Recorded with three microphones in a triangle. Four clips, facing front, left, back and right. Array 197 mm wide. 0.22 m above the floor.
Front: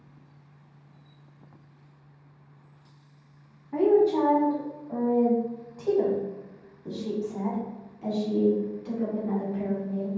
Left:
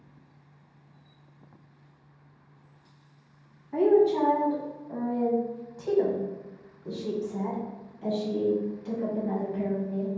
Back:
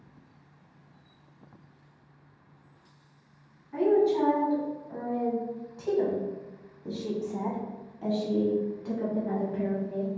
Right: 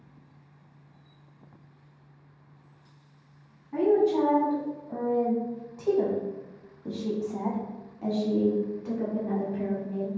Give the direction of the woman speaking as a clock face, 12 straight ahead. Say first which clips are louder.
Left 1 dB, front 3 dB; 12 o'clock.